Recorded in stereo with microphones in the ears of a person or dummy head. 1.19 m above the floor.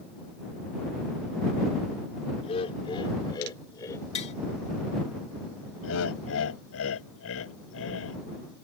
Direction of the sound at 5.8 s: 85° left.